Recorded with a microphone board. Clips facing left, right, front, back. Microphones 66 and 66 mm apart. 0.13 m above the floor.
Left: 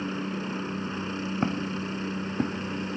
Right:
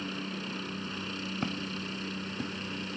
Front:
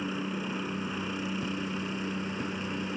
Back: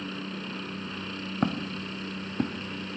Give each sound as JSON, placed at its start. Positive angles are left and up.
{"t": 0.0, "sound": "a helicopter", "azimuth_deg": 60}
{"t": 1.4, "sound": "footsteps", "azimuth_deg": 155}